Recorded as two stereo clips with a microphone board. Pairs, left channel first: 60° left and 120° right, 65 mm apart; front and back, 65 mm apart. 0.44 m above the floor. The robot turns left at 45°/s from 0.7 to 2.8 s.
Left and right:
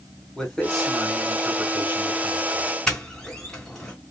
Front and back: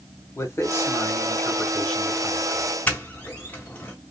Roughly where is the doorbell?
Ahead.